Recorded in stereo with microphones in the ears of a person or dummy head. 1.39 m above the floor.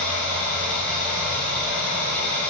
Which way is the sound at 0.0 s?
5° left (ahead or behind).